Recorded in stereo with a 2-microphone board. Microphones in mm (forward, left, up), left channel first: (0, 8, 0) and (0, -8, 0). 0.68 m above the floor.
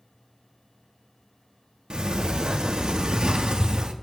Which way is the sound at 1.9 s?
50° right (ahead or behind).